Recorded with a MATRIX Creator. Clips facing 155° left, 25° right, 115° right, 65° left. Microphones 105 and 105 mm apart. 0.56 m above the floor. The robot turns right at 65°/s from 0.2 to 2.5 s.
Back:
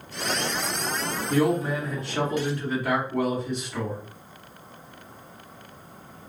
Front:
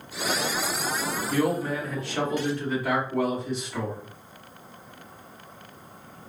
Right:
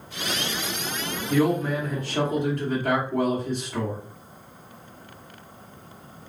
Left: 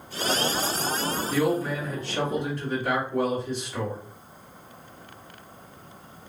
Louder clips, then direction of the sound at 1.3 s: Back 3 dB, right 4 dB; straight behind.